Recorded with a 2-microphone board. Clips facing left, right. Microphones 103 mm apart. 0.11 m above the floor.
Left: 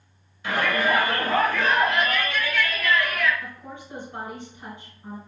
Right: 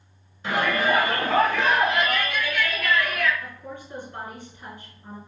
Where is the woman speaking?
20° left (ahead or behind), 1.6 m.